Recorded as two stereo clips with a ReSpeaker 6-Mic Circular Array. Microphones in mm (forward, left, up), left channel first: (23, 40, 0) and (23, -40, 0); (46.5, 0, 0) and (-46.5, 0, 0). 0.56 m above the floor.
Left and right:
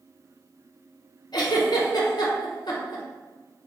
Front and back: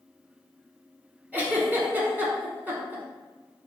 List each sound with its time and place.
1.3 s a giggle: 110° left, 1.2 m